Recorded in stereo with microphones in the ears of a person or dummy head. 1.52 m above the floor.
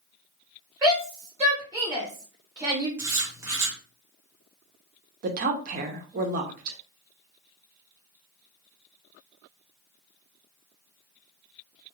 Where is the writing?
10° right (ahead or behind), 0.9 m.